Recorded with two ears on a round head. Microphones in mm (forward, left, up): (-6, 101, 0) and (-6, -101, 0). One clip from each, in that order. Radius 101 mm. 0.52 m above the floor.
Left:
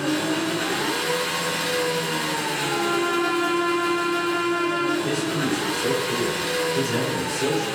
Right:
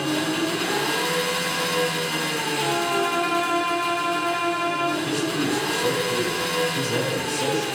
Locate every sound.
0.0 s an engine running: 55° right (ahead or behind), 1.7 m
2.6 s a violin: 45° right (ahead or behind), 1.9 m
5.0 s a man speaking: 45° right (ahead or behind), 1.6 m